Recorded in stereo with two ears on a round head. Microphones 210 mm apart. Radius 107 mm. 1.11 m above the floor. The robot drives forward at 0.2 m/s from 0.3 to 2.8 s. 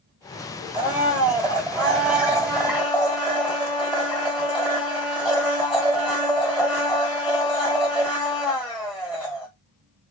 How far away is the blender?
About 1.1 m.